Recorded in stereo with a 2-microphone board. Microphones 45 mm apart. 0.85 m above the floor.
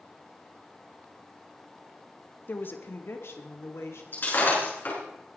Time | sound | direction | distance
2.5 | a woman speaking | 50° left (ahead or behind) | 1.3 m
4.1 | breaking glass | 50° left (ahead or behind) | 6.5 m